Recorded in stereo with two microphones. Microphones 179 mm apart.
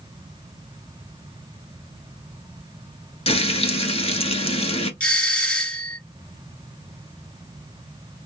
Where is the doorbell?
5° left (ahead or behind), 1.6 m.